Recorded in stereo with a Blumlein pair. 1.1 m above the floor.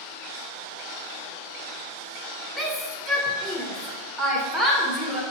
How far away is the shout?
About 1.2 m.